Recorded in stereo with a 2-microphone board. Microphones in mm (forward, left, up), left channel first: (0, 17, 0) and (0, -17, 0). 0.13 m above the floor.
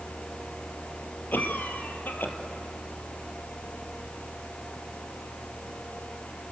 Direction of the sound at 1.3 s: 65° left (ahead or behind).